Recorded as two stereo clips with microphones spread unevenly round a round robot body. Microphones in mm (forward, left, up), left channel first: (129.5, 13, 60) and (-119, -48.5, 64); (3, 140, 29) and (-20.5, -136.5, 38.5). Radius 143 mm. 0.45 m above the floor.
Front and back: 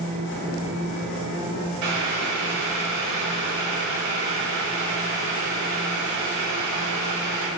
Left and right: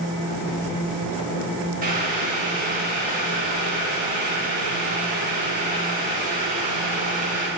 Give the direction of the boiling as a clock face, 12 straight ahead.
5 o'clock.